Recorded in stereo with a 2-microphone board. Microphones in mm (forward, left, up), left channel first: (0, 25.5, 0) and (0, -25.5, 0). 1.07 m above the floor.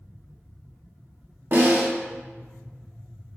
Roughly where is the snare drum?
Right.